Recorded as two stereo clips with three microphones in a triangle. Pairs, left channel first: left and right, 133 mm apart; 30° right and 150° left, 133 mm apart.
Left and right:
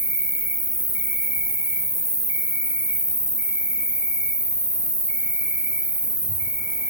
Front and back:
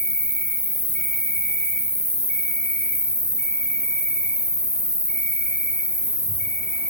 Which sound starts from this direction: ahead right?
An insect, at 0.0 s.